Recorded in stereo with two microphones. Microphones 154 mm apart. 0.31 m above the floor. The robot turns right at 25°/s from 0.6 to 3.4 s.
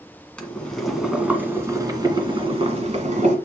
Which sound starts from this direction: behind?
Boiling, at 0.4 s.